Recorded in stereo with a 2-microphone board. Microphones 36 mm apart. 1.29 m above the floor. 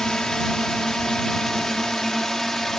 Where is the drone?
20° left (ahead or behind); by 2.8 s 10° left (ahead or behind).